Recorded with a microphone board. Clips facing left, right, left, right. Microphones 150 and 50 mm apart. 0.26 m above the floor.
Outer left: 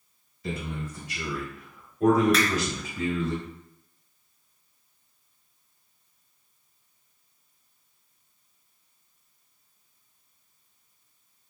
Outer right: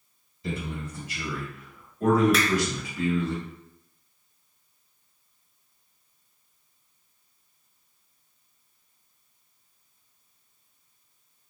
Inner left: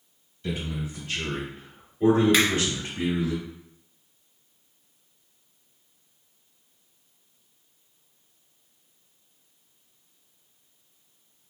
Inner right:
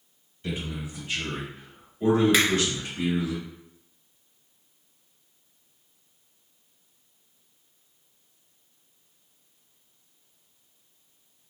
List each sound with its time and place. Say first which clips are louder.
0.4 s a man speaking: even, inner left 2 dB; 20° right (ahead or behind), 1.6 m; by 3.3 s 35° left (ahead or behind), 1.5 m
2.3 s a finger snap: outer left 1 dB, inner left 1 dB; centre (ahead or behind), 0.7 m